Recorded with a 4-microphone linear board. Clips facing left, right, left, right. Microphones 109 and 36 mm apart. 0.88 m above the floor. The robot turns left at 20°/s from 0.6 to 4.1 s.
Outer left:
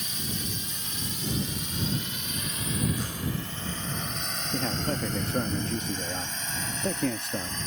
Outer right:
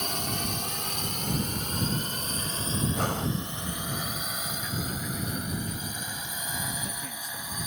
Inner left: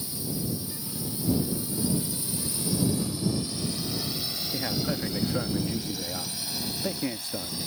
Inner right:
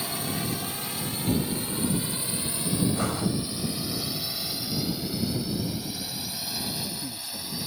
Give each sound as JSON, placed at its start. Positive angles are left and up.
{"t": 0.0, "sound": "a drone", "side_deg": -60}
{"t": 2.9, "sound": "breathing", "side_deg": -60}
{"t": 4.5, "sound": "a man speaking", "side_deg": 70}